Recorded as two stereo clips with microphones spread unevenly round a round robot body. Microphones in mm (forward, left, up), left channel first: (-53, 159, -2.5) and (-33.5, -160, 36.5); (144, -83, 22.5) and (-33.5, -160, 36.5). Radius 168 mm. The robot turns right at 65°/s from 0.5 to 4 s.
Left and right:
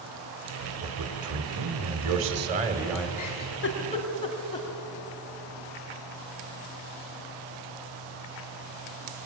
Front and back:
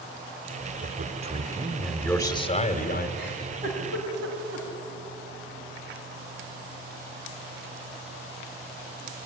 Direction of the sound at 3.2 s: 115° left.